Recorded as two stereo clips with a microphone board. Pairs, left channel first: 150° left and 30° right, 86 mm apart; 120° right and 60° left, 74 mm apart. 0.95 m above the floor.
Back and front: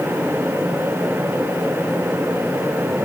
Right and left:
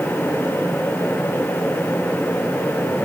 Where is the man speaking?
I don't hear a man speaking.